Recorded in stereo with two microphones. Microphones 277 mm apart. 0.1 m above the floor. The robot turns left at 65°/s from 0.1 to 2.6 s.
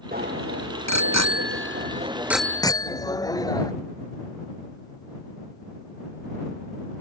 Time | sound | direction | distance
0.1 | a bicycle bell | 30° right | ?